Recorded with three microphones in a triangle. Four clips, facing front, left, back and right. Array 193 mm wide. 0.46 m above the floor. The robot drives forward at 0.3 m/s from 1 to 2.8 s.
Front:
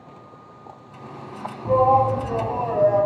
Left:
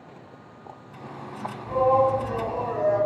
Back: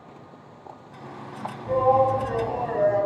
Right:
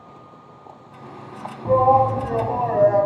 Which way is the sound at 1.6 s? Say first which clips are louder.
Right 5 dB, front 3 dB; 65° right.